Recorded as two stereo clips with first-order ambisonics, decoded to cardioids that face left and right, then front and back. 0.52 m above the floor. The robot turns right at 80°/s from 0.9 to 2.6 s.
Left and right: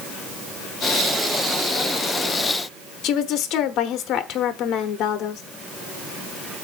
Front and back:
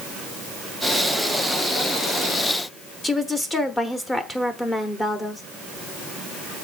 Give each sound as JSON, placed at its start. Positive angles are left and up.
{"t": 3.0, "sound": "a woman speaking", "azimuth_deg": 75, "distance_m": 1.0}